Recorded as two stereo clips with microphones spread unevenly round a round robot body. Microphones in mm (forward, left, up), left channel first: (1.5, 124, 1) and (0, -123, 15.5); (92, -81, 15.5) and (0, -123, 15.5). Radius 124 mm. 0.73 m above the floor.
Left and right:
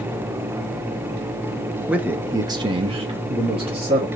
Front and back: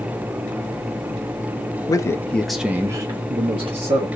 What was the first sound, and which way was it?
A man speaking, 5° right.